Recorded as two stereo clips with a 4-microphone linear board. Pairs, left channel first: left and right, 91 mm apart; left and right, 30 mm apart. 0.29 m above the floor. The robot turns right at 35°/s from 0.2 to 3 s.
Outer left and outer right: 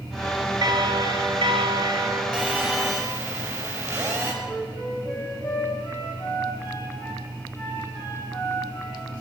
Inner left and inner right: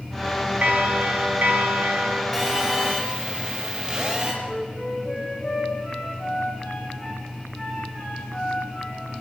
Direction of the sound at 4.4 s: 15° left (ahead or behind).